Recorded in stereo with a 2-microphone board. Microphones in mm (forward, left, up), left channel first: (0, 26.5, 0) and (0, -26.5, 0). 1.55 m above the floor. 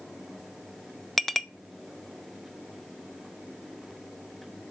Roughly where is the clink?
Centre.